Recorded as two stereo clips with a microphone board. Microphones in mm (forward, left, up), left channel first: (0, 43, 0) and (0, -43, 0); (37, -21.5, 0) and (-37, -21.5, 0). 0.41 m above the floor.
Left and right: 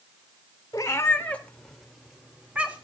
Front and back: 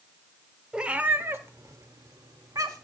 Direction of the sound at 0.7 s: 110° left.